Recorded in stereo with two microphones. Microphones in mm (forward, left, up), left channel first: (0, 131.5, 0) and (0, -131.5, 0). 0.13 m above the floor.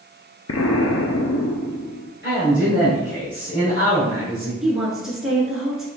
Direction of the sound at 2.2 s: 40° left (ahead or behind).